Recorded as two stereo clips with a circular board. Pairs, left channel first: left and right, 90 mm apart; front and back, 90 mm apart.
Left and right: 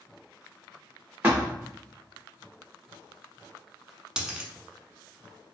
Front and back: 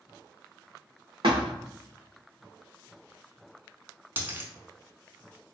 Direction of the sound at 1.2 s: 165° right.